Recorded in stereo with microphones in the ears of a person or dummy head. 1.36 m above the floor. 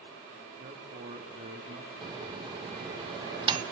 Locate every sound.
0.6 s a man speaking: 45° right (ahead or behind), 3.5 m
2.0 s a microwave: 35° right (ahead or behind), 0.9 m